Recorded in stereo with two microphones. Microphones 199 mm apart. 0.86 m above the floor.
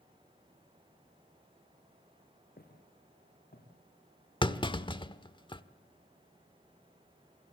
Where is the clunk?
25° left (ahead or behind), 1.2 m.